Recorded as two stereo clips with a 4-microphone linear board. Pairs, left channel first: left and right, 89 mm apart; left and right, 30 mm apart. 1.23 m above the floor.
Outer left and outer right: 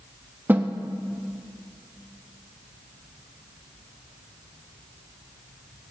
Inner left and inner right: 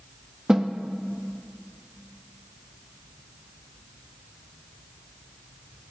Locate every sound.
0.5 s a snare drum: 25° right (ahead or behind), 0.7 m